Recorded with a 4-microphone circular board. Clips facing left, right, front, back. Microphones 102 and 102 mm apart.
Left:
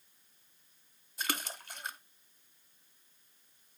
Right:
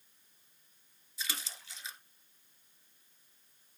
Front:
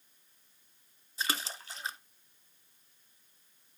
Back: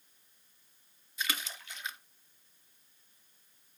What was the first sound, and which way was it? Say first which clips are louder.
A splash: left 6 dB, front 2 dB; 55° left.